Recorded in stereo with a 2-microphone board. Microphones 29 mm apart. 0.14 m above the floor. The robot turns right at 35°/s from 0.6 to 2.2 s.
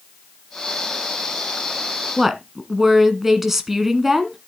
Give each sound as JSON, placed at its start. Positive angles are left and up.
{"t": 2.2, "sound": "a woman speaking", "side_deg": -15, "distance_m": 1.4}